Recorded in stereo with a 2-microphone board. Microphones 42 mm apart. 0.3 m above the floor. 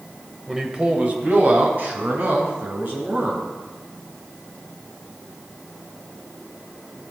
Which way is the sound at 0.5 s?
10° right (ahead or behind).